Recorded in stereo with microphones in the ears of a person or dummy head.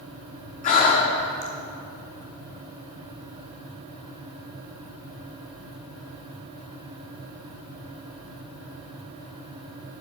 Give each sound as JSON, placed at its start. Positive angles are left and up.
{"t": 0.6, "sound": "breathing", "side_deg": 40, "distance_m": 1.2}